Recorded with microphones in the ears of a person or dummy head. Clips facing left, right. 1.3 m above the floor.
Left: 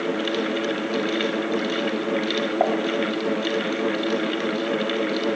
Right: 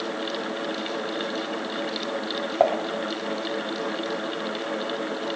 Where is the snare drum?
I don't hear a snare drum.